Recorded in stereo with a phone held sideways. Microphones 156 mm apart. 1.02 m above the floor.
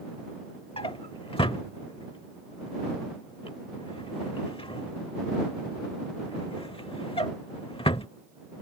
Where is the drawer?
35° left (ahead or behind).